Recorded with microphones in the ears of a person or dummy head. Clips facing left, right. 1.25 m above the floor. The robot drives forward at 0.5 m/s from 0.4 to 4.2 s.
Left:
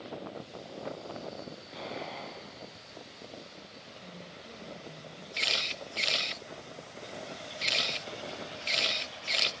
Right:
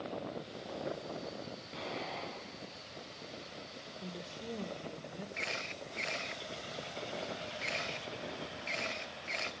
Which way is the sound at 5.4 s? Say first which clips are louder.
Left 2 dB; 45° left (ahead or behind).